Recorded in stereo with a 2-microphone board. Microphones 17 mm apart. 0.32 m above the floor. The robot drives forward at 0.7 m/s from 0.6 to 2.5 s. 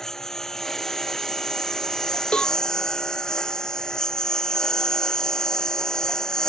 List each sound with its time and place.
0.0 s a lawn mower: 30° left (ahead or behind); by 6.5 s 40° left (ahead or behind)
2.3 s a cowbell: 80° left